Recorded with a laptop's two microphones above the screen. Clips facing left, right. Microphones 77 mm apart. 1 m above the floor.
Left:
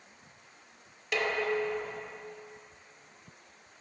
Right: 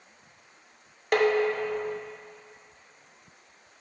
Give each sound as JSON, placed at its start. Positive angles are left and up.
{"t": 1.1, "sound": "dishes clattering", "side_deg": -45, "distance_m": 0.6}